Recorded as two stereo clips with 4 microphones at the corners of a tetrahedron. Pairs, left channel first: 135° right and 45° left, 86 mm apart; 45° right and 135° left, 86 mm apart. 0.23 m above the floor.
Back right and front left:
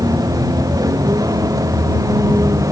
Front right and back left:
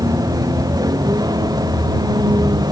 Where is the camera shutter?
No camera shutter in this recording.